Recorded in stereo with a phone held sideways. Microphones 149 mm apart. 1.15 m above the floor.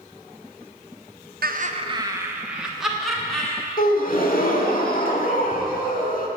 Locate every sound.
1.4 s laughter: 75° right (ahead or behind), 0.7 m; by 3.6 s 5° left (ahead or behind), 3 m
3.8 s a gasp: 60° left (ahead or behind), 1.2 m